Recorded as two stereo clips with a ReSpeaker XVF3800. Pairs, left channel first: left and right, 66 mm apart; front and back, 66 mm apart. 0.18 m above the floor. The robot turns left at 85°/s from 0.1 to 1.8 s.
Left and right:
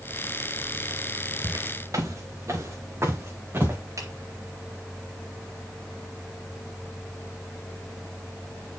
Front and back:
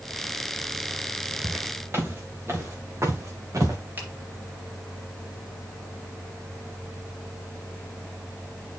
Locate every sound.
1.4 s footsteps: 90° right, 5 m; by 3.8 s 145° right, 4 m
4.0 s a finger snap: 120° right, 3 m